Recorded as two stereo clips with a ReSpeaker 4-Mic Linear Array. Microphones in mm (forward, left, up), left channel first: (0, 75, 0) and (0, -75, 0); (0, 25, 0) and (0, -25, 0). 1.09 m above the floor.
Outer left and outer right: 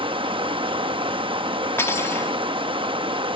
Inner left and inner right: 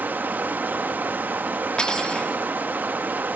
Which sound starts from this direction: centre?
Cutlery clinking, at 1.8 s.